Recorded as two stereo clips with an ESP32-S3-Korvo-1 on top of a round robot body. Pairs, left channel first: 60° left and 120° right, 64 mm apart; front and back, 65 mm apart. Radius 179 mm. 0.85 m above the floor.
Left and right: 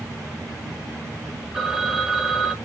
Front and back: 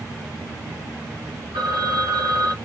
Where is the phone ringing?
160° left, 0.9 m.